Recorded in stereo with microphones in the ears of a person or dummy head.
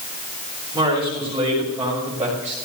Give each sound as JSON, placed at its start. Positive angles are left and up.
{"t": 0.7, "sound": "a man speaking", "side_deg": -15, "distance_m": 7.0}